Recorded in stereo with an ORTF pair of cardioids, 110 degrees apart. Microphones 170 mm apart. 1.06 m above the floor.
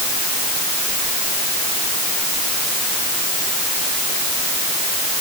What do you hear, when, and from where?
Only background noise.